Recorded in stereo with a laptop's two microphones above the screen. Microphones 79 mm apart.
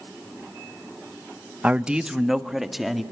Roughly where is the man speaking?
Centre.